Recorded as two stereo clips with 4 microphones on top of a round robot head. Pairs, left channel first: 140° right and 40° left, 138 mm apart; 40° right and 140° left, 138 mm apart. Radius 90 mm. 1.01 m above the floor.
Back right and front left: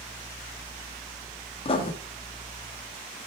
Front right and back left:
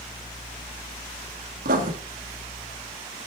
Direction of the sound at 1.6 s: 165° left.